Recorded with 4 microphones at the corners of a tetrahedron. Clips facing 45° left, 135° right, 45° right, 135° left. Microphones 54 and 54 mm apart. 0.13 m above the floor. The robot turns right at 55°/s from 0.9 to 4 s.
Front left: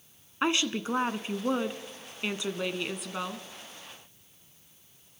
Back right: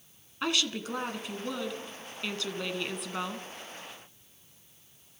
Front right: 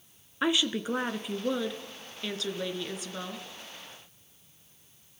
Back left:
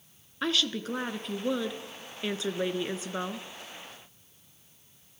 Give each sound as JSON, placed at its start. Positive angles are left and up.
{"t": 0.4, "sound": "a woman speaking", "azimuth_deg": 15, "distance_m": 1.2}